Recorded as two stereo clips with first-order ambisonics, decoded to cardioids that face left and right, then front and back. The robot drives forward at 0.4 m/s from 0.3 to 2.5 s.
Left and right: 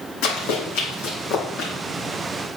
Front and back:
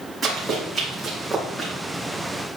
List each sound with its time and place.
0.2 s running footsteps: 95° left, 3 m; by 1.7 s 80° left, 3 m